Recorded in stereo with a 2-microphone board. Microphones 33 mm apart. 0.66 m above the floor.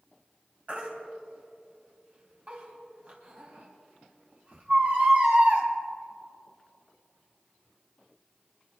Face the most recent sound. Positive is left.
turn(degrees=-45)  # may be behind; listen again after turning